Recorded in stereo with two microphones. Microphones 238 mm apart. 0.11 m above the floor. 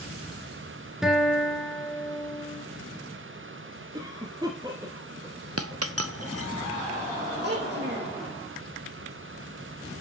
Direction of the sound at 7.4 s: 45° right (ahead or behind).